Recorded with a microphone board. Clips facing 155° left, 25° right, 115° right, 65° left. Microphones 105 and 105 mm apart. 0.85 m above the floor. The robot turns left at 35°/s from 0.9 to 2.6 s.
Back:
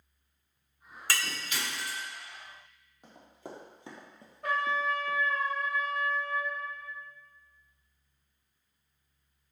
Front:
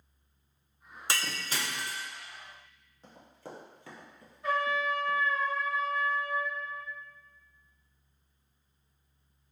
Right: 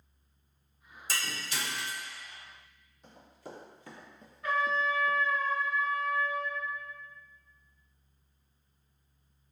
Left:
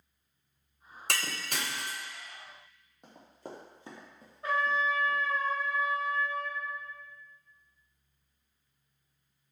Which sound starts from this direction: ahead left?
Breaking glass, at 1.1 s.